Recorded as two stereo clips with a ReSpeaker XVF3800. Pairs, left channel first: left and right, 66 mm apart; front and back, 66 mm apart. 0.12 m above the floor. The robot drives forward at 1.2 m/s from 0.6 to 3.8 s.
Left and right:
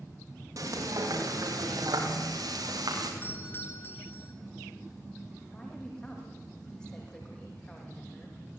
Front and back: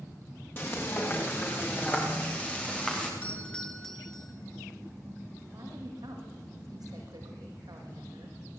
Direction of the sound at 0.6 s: 55° right.